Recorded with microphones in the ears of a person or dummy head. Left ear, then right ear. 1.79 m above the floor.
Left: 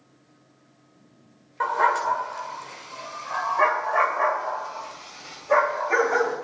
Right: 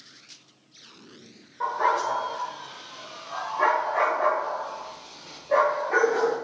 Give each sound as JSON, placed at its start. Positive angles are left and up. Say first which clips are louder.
{"t": 1.6, "sound": "a dog barking", "louder": "left 2 dB", "side_deg": 45, "distance_m": 2.0}